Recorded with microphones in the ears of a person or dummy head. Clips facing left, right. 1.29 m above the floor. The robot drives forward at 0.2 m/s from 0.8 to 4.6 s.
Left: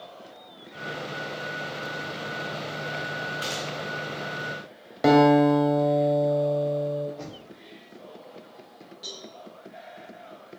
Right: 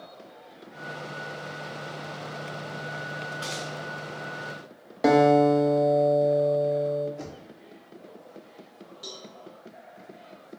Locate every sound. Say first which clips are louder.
3.4 s a gunshot: left 2 dB; 30° left (ahead or behind), 0.9 m; by 3.8 s 25° left (ahead or behind), 0.9 m
5.0 s a guitar: left 1 dB; 5° left (ahead or behind), 0.6 m
7.2 s knocking: even; 15° right (ahead or behind), 0.8 m
9.0 s a cowbell: left 1 dB; 10° right (ahead or behind), 1.4 m